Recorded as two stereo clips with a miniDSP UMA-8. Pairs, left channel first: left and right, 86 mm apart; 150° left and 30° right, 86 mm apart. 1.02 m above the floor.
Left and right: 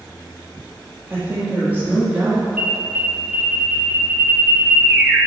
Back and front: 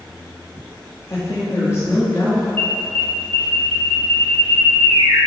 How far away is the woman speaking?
About 2.5 m.